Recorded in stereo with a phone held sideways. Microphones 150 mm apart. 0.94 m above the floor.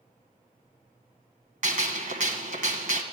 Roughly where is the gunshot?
Right.